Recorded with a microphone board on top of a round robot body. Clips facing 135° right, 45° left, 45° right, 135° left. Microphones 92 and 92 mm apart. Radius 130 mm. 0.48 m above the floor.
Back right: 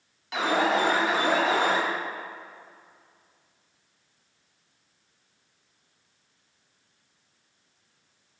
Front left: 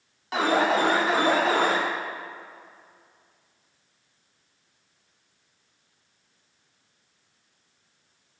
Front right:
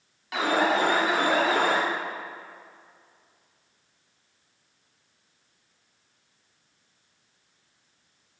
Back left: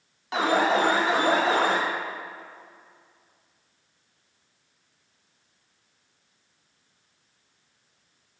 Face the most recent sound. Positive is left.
turn(degrees=85)